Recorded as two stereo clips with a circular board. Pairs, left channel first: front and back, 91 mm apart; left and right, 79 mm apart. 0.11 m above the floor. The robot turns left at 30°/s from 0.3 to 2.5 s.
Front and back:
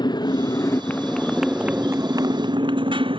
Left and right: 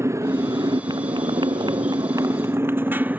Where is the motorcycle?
40° right; by 3.2 s 160° right.